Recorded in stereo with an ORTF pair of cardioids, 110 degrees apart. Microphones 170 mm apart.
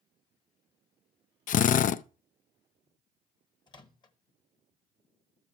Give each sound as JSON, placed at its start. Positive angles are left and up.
{"t": 1.5, "sound": "a drill", "azimuth_deg": 50, "distance_m": 0.5}
{"t": 3.7, "sound": "a microwave", "azimuth_deg": 25, "distance_m": 1.2}